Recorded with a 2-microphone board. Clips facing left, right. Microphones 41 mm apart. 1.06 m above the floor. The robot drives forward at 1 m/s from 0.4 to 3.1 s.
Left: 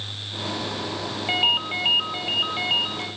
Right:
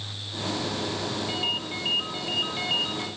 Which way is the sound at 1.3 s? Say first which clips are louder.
Left 12 dB; 50° left (ahead or behind).